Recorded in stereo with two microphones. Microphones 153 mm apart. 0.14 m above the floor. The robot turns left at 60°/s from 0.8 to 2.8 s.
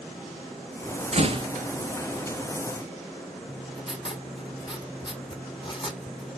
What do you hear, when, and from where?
1.1 s a door slam: 45° right (ahead or behind), 1.6 m; by 1.5 s 30° right (ahead or behind), 1.6 m
3.5 s writing: 30° left (ahead or behind), 1.6 m